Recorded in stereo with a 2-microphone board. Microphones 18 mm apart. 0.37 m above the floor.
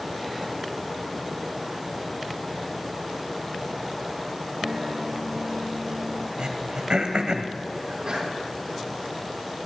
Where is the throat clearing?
60° right (ahead or behind), 1.3 m.